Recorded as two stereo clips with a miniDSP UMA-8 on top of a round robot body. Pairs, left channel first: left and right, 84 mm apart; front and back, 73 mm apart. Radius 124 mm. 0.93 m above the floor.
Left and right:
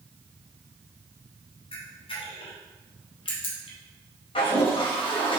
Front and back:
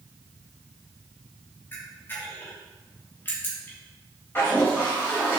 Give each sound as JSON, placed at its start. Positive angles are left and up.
{"t": 1.7, "sound": "a camera shutter", "azimuth_deg": 70, "distance_m": 1.4}
{"t": 4.3, "sound": "a toilet flushing", "azimuth_deg": 70, "distance_m": 1.9}